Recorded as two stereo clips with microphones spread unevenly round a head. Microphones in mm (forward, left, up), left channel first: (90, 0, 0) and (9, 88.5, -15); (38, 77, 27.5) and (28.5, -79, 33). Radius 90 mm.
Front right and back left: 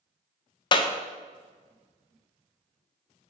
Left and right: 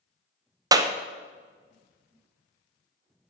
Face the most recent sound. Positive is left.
turn(degrees=-50)